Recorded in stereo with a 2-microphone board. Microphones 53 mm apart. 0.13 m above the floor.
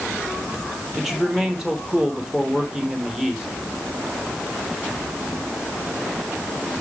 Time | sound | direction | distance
0.9 | a man speaking | 5° right (ahead or behind) | 3 m